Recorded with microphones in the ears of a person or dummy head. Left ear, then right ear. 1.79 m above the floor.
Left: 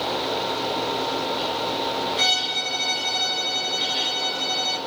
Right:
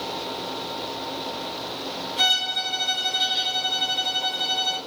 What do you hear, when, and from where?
2.2 s a violin: 5° right (ahead or behind), 2 m